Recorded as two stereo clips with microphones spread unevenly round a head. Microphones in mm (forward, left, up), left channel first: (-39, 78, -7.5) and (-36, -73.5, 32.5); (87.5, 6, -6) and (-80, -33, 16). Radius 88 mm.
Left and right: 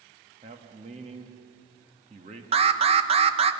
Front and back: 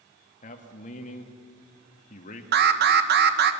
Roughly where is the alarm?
Behind right.